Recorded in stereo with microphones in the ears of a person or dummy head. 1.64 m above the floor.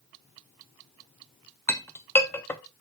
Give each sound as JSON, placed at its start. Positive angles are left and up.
{"t": 1.7, "sound": "a clink", "side_deg": 10, "distance_m": 0.6}